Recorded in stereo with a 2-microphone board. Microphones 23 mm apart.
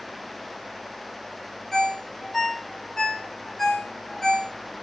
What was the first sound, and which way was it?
A ringtone, 15° left (ahead or behind).